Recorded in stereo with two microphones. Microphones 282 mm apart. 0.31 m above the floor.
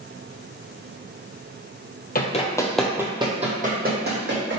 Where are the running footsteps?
35° left (ahead or behind), 0.5 m; by 4.6 s 45° right (ahead or behind), 1.2 m.